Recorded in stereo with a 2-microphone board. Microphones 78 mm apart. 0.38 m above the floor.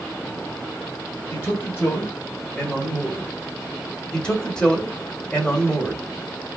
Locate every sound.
1.3 s a man speaking: 35° left (ahead or behind), 0.9 m; by 3.3 s 20° right (ahead or behind), 1.3 m
4.1 s a man speaking: 10° left (ahead or behind), 1.1 m